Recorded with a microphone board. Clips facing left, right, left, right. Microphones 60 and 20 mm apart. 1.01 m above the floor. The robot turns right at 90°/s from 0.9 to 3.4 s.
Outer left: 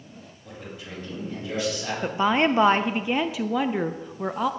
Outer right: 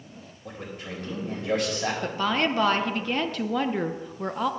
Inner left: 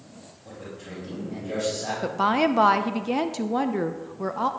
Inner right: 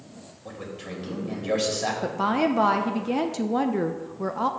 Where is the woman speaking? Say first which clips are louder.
Outer left 6 dB, inner left 3 dB; 15° left (ahead or behind), 0.5 m; by 4.5 s 5° left (ahead or behind), 0.5 m.